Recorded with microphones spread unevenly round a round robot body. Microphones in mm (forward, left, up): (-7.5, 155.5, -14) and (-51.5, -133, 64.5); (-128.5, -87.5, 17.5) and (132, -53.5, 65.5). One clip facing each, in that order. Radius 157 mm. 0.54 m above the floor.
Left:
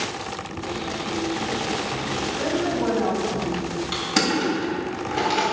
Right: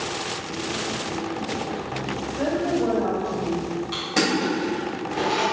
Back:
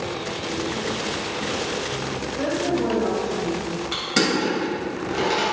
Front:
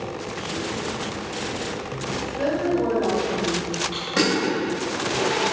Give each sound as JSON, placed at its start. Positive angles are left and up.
{"t": 2.4, "sound": "a woman speaking", "azimuth_deg": 130, "distance_m": 3.0}
{"t": 3.9, "sound": "crushing", "azimuth_deg": 135, "distance_m": 3.5}